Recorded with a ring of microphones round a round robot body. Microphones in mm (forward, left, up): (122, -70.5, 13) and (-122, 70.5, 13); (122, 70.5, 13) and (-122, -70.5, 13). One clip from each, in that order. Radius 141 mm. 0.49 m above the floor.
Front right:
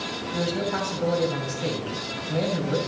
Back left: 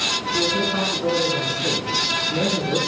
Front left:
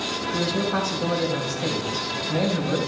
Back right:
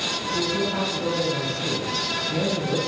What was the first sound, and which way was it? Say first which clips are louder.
A man speaking: back left 2 dB, front left 1 dB; 5° left.